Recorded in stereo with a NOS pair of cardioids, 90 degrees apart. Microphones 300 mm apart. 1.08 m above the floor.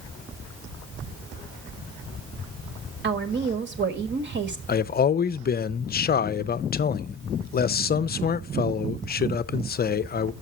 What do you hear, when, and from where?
3.0 s a woman speaking: 40° right, 1.6 m
4.7 s a man speaking: 30° left, 0.6 m